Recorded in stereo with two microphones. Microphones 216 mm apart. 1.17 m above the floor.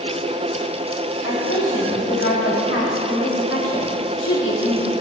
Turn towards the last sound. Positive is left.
turn(degrees=65)  # may be behind; listen again after turning